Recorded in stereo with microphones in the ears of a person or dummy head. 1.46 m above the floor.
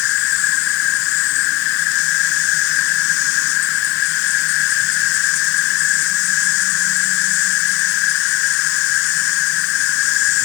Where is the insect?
70° left (ahead or behind).